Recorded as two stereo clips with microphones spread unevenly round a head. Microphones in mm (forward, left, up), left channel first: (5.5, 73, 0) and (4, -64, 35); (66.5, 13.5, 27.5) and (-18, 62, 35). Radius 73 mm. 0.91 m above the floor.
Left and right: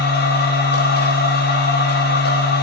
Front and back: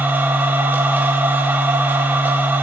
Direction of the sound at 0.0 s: 80° left.